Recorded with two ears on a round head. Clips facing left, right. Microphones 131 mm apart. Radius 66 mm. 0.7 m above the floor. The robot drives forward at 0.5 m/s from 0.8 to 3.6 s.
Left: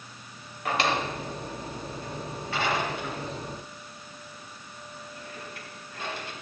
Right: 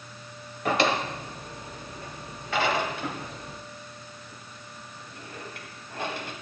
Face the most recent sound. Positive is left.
turn(degrees=-50)  # may be behind; listen again after turning